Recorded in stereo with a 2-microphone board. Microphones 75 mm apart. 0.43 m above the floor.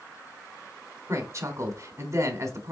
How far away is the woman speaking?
About 1.0 m.